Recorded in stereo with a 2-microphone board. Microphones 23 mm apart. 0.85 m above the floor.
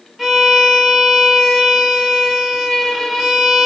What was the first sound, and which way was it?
A violin, centre (ahead or behind).